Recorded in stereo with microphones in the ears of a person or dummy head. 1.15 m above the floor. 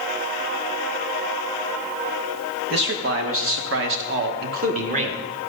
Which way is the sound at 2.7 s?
65° right (ahead or behind).